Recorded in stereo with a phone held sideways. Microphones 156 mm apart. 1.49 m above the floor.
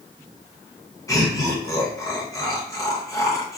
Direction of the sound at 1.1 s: 20° left (ahead or behind).